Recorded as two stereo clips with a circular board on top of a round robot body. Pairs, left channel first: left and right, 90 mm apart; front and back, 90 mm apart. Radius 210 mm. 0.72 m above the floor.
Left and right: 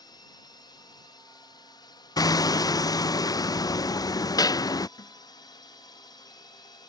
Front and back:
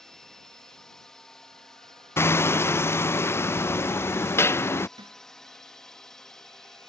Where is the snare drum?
140° left.